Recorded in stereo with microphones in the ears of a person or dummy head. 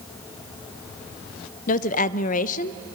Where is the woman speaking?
45° left (ahead or behind), 0.7 m.